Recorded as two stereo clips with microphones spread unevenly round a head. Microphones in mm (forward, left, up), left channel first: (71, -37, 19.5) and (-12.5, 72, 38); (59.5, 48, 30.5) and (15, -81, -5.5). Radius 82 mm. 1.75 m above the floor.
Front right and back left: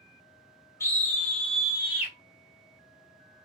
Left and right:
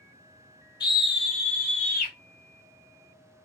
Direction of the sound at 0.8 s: 20° left.